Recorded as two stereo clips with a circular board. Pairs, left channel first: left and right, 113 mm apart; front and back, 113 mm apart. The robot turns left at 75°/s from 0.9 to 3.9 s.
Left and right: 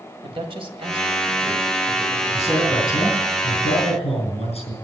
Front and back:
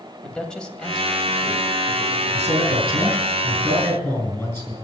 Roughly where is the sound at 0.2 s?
Right.